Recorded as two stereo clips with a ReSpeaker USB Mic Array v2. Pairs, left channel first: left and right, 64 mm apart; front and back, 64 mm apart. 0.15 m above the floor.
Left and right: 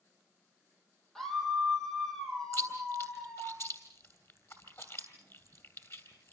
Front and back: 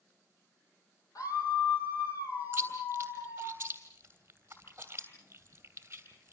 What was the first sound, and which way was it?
A scream, 5° left.